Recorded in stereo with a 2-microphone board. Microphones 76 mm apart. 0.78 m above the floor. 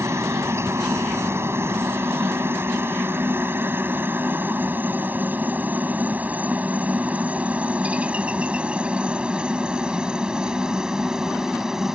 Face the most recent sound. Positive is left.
turn(degrees=-5)  # may be behind; listen again after turning